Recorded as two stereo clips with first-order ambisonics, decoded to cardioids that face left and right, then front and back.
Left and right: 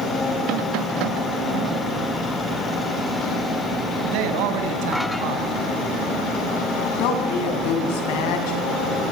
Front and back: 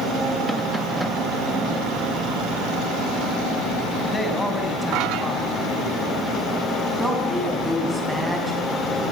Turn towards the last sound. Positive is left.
turn(degrees=90)